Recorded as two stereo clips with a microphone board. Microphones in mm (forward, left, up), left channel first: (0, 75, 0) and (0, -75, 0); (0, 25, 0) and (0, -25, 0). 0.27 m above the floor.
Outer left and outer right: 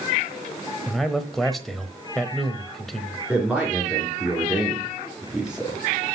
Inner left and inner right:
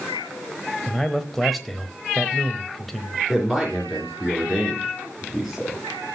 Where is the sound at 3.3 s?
5° right (ahead or behind), 3 m.